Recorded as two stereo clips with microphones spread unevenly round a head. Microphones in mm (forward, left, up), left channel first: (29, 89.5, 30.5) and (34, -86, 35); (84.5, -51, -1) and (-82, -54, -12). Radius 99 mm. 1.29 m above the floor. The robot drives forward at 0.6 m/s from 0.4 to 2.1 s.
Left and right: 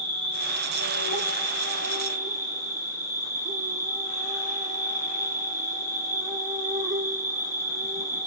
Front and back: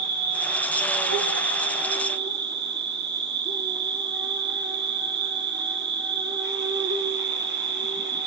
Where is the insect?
160° right, 4.5 m.